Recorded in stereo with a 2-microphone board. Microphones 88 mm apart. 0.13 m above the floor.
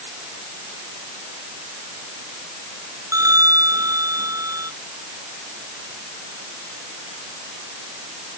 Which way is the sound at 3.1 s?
40° right (ahead or behind).